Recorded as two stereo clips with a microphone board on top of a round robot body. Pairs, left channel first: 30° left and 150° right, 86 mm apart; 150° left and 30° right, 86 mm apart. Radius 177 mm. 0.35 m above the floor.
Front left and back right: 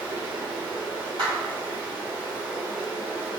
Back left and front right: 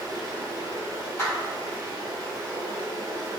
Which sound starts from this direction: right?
Running water, at 0.0 s.